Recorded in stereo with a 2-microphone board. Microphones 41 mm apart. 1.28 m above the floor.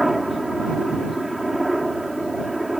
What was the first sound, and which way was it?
A helicopter, 5° right (ahead or behind).